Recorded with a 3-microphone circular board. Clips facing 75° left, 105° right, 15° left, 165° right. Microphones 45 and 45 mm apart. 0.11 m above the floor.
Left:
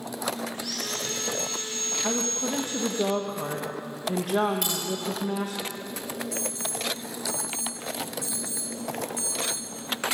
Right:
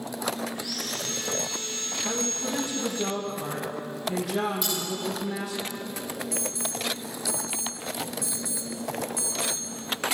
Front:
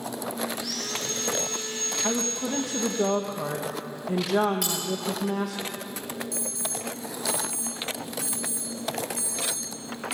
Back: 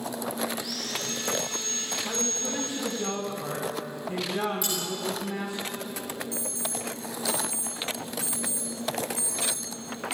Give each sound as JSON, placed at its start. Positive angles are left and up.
{"t": 0.5, "sound": "sawing", "azimuth_deg": 40, "distance_m": 7.5}
{"t": 2.0, "sound": "a woman speaking", "azimuth_deg": 30, "distance_m": 5.0}
{"t": 4.6, "sound": "cutlery clinking", "azimuth_deg": 40, "distance_m": 7.0}
{"t": 6.3, "sound": "an alarm", "azimuth_deg": 130, "distance_m": 7.0}